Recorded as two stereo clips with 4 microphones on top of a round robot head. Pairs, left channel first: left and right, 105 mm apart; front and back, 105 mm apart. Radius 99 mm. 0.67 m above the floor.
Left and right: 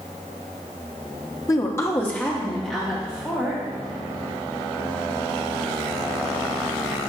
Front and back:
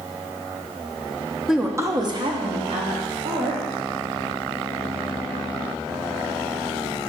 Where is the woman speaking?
100° left, 1.0 m; by 3.6 s 175° right, 3 m.